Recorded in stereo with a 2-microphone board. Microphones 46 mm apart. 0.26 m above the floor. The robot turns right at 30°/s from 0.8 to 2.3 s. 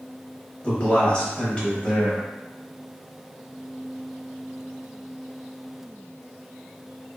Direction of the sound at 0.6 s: 25° left (ahead or behind).